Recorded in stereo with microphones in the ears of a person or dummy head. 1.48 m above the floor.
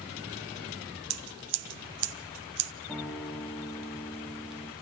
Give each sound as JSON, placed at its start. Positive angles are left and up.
{"t": 1.1, "sound": "scissors", "side_deg": -80, "distance_m": 1.2}
{"t": 2.9, "sound": "a guitar", "side_deg": 5, "distance_m": 1.0}